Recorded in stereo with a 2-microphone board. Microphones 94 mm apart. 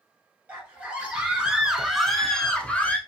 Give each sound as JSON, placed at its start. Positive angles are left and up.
{"t": 0.5, "sound": "a scream", "side_deg": -15, "distance_m": 2.5}